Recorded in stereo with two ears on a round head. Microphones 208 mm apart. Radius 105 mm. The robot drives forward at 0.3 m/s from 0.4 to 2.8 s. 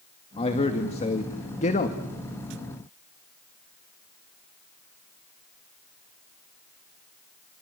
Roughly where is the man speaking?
Left.